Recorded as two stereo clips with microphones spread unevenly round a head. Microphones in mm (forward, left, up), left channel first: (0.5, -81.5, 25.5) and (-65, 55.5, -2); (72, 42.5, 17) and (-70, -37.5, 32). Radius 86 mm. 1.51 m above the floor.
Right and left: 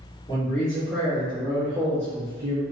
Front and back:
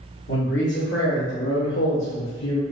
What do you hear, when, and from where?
0.3 s a man speaking: 10° left, 1.7 m; by 2.6 s 70° left, 0.5 m